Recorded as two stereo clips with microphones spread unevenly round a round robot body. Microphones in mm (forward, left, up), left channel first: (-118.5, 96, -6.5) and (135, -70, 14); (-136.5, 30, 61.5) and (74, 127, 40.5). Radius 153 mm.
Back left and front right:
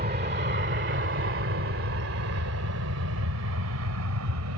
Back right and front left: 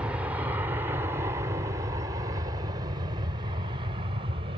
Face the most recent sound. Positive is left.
turn(degrees=-30)